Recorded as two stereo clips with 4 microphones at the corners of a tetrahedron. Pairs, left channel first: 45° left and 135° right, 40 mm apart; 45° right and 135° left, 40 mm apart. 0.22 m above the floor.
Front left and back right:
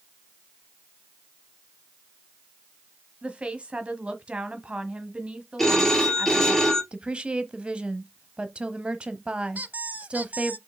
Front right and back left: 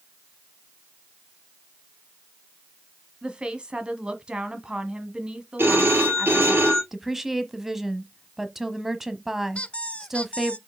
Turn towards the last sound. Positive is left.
turn(degrees=-100)